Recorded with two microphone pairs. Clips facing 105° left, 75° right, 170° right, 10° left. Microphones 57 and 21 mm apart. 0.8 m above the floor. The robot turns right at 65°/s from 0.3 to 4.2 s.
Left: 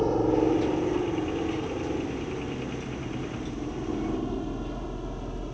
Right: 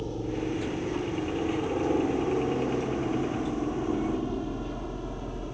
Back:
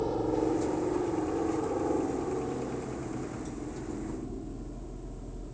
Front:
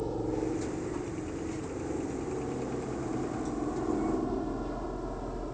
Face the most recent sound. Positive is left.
turn(degrees=10)